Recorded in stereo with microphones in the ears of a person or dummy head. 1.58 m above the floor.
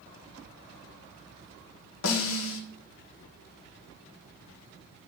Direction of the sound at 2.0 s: 75° left (ahead or behind).